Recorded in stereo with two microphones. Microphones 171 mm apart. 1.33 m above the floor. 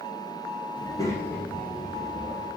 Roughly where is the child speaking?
Left.